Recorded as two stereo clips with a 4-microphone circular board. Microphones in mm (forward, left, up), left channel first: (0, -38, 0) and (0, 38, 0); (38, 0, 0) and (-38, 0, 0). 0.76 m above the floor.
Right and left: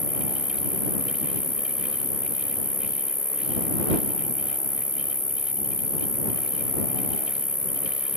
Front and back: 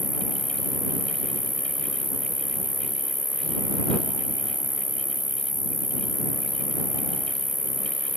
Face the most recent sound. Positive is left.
turn(degrees=110)